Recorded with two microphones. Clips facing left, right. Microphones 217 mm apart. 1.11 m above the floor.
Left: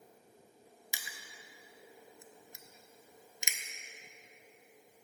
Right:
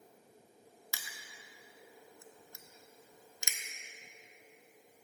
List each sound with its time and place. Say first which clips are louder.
0.9 s crushing: left 3 dB; 20° left (ahead or behind), 0.5 m